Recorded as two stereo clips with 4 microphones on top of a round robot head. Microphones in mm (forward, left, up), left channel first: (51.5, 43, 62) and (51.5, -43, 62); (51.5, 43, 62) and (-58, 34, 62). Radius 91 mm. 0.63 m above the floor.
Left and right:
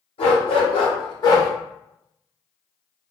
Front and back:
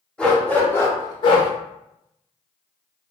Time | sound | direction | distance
0.2 | a dog barking | 90° left | 1.1 m